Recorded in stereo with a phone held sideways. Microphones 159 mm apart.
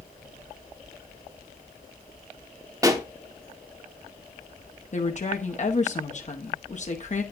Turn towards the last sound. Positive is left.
turn(degrees=50)  # may be behind; listen again after turning